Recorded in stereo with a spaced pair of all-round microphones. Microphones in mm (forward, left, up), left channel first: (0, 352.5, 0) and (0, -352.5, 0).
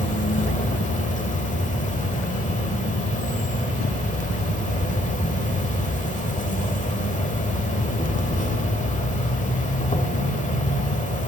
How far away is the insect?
About 1.1 m.